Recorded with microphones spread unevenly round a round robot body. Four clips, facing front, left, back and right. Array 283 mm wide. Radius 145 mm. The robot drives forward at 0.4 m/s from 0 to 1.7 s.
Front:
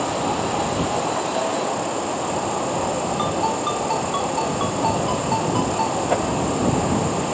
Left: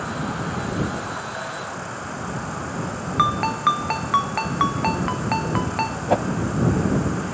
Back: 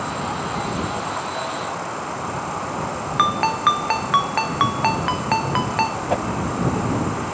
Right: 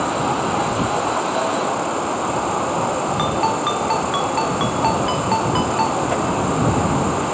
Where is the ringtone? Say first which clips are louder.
Left 3 dB, back 8 dB; 170° left.